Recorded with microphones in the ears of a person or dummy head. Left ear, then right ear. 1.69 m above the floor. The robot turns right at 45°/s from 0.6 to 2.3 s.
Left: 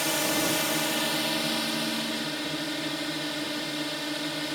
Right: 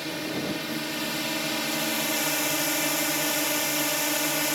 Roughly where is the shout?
No shout in this recording.